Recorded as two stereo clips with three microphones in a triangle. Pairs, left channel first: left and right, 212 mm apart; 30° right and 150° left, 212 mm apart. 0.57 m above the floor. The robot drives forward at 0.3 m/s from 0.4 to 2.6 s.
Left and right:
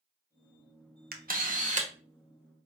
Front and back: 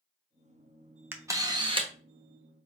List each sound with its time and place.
1.1 s a camera shutter: 130° right, 0.6 m; by 1.9 s 145° right, 0.7 m